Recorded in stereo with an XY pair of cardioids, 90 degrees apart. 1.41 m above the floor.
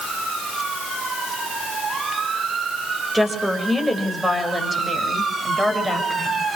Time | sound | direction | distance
3.1 | a woman speaking | 15° right | 7.5 m